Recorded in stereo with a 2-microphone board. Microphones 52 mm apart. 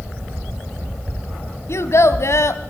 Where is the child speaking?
65° left (ahead or behind), 1.3 m.